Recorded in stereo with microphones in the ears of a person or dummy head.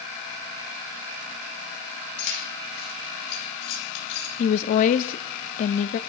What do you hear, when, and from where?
2.2 s keys jangling: 70° left (ahead or behind), 6 m; by 4.3 s 75° left (ahead or behind), 4.5 m
4.4 s a woman speaking: 40° left (ahead or behind), 0.6 m